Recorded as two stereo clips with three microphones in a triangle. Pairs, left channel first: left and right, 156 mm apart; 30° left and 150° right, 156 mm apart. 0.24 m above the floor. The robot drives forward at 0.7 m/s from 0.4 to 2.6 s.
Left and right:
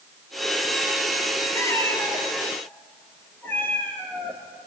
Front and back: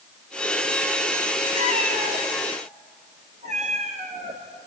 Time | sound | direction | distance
1.5 | a cat meowing | 160° left | 2 m